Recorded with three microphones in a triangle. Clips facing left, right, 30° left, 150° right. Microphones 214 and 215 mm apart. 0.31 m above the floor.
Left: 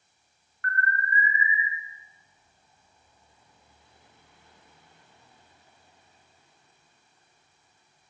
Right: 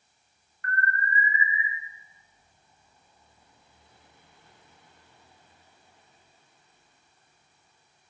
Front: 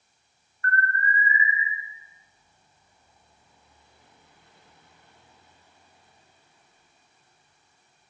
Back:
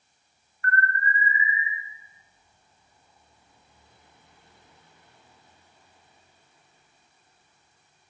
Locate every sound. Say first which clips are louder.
0.6 s an alarm: even, back 1 dB; 75° left, 1.6 m